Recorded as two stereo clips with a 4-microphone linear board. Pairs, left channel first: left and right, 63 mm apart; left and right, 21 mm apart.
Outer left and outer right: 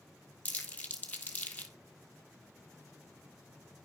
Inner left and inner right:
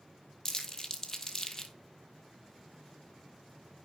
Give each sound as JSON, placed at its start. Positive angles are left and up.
{"t": 0.5, "sound": "crumpling", "side_deg": 25, "distance_m": 1.5}